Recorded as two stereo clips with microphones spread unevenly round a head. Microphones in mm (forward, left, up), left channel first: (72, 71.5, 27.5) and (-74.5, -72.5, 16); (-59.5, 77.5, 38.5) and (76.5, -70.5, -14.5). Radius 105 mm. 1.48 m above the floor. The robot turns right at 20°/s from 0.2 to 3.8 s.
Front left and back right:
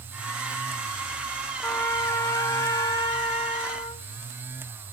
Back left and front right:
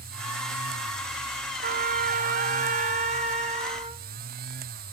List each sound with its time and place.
1.6 s a trumpet: 20° right, 1.0 m; by 4.0 s 20° left, 1.0 m